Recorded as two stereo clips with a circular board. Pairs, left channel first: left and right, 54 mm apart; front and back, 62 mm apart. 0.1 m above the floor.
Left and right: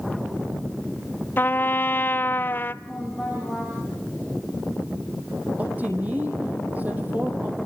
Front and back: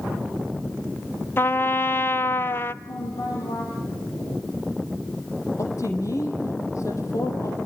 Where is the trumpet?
45° left, 0.6 m.